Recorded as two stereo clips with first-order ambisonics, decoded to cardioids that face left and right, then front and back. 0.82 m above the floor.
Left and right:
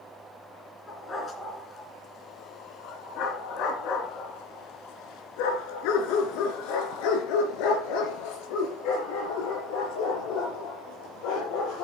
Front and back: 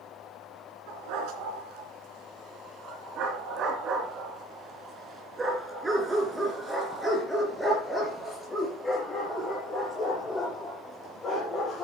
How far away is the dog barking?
About 3 m.